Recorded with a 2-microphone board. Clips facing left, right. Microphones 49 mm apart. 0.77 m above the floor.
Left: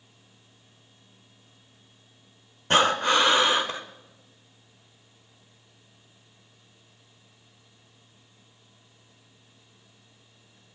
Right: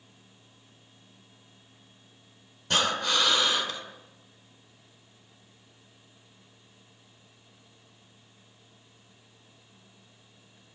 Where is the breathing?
35° left (ahead or behind), 1.8 m.